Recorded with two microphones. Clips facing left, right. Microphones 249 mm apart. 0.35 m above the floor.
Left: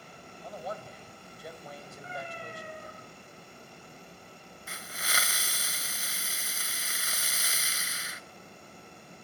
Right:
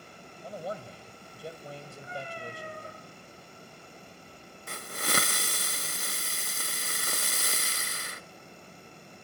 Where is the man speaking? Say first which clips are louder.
Right 2 dB; 30° right (ahead or behind), 2 m.